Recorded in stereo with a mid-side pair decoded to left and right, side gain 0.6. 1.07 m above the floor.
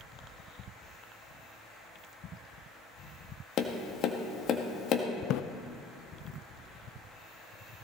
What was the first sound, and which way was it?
Tapping, 50° left.